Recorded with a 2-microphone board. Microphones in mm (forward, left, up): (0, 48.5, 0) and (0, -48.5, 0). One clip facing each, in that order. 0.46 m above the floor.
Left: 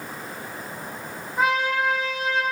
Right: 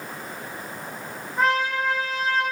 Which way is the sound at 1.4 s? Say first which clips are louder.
Even; 5° left (ahead or behind).